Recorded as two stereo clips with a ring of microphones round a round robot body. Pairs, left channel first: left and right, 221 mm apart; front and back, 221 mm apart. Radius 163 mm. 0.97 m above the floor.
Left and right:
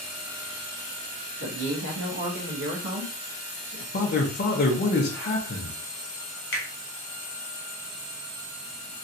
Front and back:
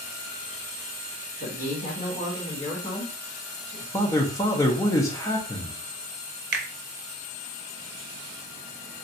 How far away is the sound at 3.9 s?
About 0.7 m.